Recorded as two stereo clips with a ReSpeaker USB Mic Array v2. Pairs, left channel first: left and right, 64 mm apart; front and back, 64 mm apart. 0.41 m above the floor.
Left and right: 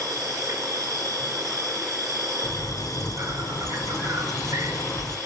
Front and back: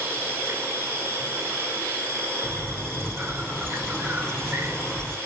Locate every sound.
0.0 s an insect: 120° right, 7 m
2.4 s a bird: 80° left, 3 m